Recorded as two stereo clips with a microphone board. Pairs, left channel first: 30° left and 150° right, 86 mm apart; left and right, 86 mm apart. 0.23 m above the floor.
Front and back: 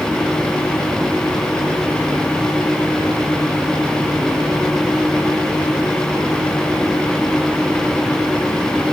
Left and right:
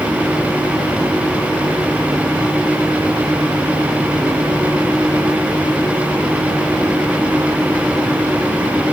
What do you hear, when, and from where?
Only background noise.